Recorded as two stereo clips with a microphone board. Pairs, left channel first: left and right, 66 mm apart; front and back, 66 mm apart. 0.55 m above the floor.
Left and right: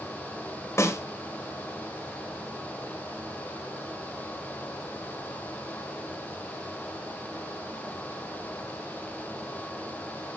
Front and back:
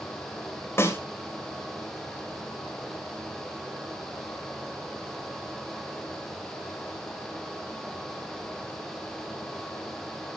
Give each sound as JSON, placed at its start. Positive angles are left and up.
{"t": 0.8, "sound": "a snare drum", "azimuth_deg": 45, "distance_m": 2.5}